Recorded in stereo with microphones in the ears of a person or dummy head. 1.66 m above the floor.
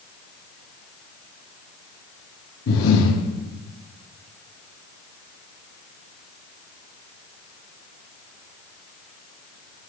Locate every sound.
2.7 s breathing: 90° left, 1.9 m